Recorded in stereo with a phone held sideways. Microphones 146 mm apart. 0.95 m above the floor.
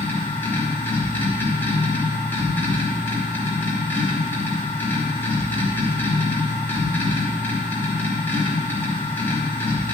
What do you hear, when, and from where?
0.0 s a machine running: 15° left (ahead or behind), 2.5 m